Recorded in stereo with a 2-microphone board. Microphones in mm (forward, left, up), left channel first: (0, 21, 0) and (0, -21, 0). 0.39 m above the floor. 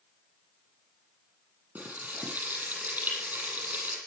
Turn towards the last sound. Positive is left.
turn(degrees=-40)  # may be behind; listen again after turning